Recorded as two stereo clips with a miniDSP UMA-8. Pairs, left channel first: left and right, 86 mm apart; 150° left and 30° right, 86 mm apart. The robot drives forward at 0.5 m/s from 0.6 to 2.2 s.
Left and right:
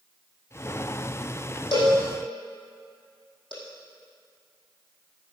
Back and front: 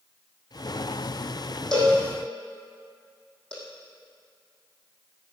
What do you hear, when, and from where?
1.7 s a cowbell: 70° left, 5 m